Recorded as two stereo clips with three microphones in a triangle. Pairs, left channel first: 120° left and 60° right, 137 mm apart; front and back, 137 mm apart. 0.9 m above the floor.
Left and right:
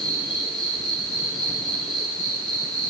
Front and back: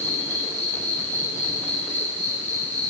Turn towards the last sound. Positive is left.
turn(degrees=35)